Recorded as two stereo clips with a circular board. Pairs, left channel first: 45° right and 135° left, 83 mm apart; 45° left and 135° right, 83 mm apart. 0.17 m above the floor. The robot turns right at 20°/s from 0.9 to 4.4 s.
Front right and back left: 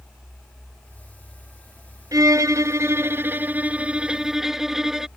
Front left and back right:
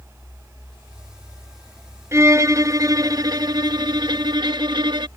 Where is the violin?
170° left; by 5.1 s 140° right.